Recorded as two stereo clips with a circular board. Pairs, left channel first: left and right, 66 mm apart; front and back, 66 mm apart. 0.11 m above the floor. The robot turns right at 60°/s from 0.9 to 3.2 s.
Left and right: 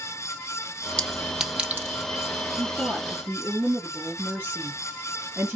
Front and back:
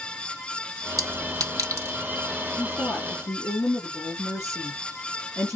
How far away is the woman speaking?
About 1.8 m.